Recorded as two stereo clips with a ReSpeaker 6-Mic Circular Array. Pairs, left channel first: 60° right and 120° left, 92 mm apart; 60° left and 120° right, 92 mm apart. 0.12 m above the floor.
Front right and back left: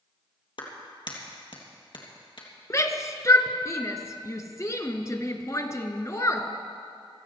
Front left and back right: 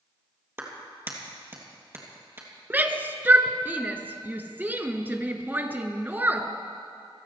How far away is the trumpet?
No trumpet in this recording.